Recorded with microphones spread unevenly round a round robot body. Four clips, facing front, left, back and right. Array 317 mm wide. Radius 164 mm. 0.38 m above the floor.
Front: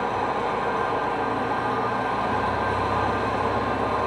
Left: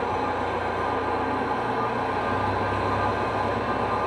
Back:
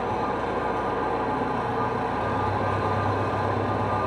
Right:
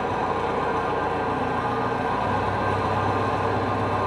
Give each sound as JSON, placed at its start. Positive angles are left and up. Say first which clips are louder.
{"t": 0.0, "sound": "an engine running", "louder": "right 1 dB, front 2 dB", "azimuth_deg": -125, "distance_m": 1.3}